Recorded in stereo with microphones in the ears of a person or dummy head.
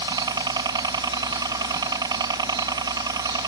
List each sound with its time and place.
0.0 s a helicopter: 20° right (ahead or behind)